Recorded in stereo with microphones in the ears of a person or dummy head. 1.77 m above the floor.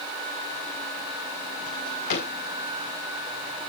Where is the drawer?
50° left (ahead or behind), 6 m.